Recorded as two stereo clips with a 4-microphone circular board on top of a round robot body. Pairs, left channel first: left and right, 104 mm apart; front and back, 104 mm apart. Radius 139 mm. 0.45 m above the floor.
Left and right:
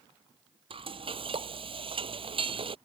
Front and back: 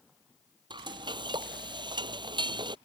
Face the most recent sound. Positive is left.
turn(degrees=-130)